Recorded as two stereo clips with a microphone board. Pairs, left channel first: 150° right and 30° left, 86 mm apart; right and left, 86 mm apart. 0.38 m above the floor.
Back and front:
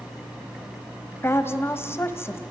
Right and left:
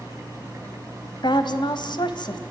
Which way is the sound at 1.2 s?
90° right.